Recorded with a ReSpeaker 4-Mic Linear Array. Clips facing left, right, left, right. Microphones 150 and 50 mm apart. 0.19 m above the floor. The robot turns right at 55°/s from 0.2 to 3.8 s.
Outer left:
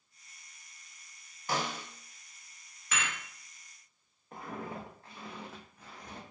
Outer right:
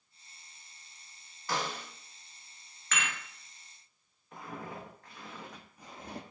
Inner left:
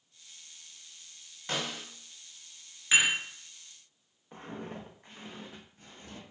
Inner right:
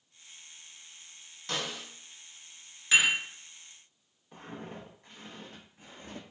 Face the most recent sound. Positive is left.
turn(degrees=-40)  # may be behind; listen again after turning